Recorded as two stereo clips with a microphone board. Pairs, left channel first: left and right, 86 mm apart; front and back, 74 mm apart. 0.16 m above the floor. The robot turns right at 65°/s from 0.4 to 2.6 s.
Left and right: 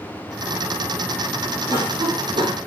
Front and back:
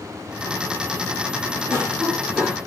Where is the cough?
130° right, 5.5 m; by 2.6 s 70° right, 5.5 m.